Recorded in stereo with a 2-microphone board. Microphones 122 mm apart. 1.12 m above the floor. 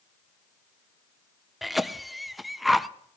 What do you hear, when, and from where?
1.6 s a cough: centre (ahead or behind), 0.5 m